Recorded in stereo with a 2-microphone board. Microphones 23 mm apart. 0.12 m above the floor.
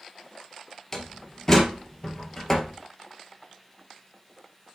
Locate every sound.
0.9 s a door slam: 15° left (ahead or behind), 2 m